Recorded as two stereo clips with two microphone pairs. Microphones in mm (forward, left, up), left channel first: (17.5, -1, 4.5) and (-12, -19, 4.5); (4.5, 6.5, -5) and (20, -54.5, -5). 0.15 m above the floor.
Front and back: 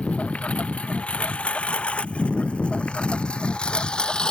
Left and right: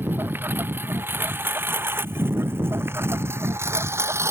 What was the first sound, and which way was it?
A lawn mower, 20° right.